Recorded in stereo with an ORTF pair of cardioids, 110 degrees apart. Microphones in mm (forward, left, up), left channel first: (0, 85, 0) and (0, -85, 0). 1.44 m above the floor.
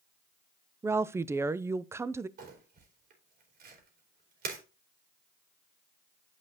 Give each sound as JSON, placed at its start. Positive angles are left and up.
{"t": 0.8, "sound": "a woman speaking", "azimuth_deg": -15, "distance_m": 0.5}
{"t": 2.4, "sound": "crumpling", "azimuth_deg": -60, "distance_m": 3.5}